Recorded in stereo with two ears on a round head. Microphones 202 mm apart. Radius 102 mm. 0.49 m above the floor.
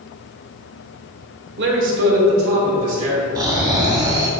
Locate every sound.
1.6 s a man speaking: 50° right (ahead or behind), 1.3 m; by 3.2 s 70° right (ahead or behind), 3.5 m
3.4 s snoring: 20° right (ahead or behind), 1.8 m